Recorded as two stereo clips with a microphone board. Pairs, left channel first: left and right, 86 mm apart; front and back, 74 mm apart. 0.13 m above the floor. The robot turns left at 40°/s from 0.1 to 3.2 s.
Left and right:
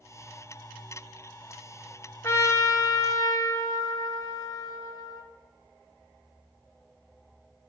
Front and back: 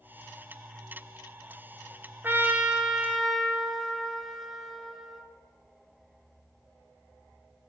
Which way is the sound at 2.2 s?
130° left.